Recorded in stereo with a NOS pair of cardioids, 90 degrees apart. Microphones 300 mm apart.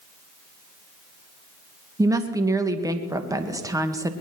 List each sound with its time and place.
2.0 s a woman speaking: 10° right, 2.0 m